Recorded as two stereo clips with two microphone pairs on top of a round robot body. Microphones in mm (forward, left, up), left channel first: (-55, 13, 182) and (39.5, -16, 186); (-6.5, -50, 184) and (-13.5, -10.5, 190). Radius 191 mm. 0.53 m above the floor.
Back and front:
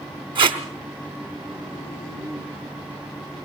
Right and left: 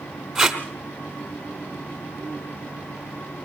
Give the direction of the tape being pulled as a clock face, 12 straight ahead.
11 o'clock.